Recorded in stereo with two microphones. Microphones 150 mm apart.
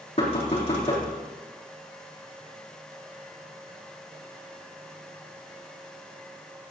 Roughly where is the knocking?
Left.